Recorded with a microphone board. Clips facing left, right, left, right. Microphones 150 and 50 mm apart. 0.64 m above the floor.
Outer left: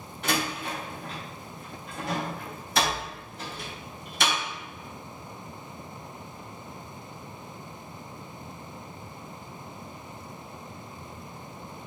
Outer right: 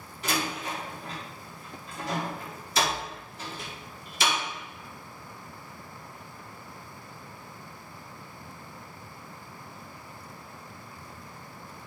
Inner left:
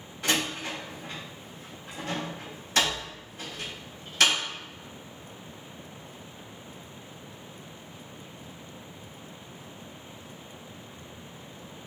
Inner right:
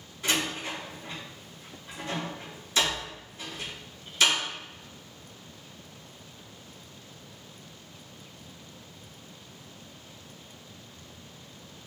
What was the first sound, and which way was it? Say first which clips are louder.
A door slam: outer left 1 dB, inner left 1 dB; 60° left (ahead or behind).